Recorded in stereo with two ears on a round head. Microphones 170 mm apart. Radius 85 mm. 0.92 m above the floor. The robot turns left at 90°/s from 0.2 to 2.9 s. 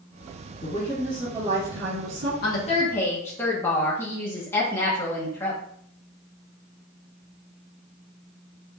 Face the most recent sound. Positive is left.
turn(degrees=15)